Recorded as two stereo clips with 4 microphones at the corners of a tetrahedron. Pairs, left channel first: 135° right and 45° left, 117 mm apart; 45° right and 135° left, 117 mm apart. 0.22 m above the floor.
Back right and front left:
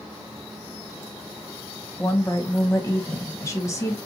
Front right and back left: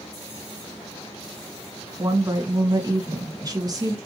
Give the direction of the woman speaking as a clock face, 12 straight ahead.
6 o'clock.